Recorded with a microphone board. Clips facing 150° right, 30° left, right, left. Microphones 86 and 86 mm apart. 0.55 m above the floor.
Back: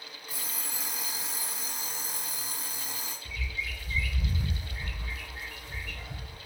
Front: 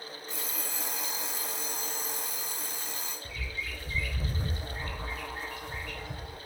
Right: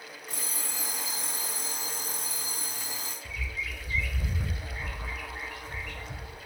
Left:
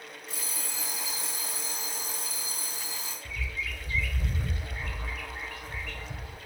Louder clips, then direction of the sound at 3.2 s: Back 3 dB, left 1 dB; 10° right.